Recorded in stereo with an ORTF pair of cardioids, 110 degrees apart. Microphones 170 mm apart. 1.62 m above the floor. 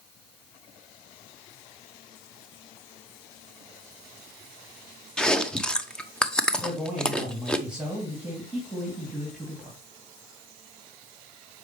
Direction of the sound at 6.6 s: 5° right.